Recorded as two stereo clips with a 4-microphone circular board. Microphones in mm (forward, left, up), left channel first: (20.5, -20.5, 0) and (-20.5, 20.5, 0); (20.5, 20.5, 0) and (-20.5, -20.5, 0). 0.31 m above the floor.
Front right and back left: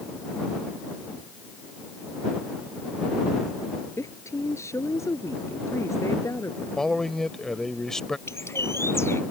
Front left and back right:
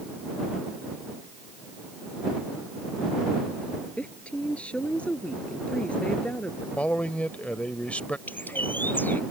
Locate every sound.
4.0 s a woman speaking: 25° right
6.8 s a man speaking: 25° left
8.3 s a bird: 10° right